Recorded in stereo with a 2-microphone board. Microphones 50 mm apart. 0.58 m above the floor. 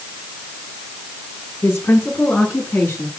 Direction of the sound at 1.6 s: 55° left (ahead or behind).